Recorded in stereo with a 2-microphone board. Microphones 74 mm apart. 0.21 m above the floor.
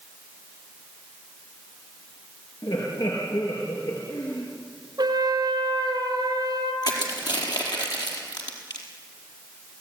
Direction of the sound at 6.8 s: 75° left (ahead or behind).